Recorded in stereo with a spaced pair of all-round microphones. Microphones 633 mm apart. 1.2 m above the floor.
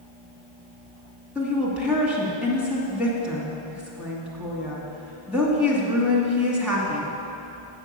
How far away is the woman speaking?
About 2 m.